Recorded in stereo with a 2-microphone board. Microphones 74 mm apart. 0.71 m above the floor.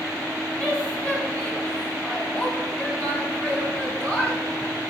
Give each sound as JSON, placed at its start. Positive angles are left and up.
{"t": 0.6, "sound": "a woman speaking", "side_deg": 15, "distance_m": 4.5}